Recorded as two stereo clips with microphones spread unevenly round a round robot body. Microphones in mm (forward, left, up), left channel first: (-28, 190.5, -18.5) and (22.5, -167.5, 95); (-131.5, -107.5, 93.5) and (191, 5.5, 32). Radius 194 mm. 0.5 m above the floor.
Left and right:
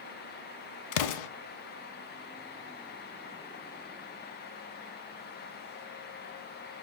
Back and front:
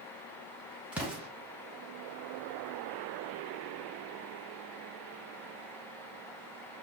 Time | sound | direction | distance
0.9 | an explosion | 110° left | 0.7 m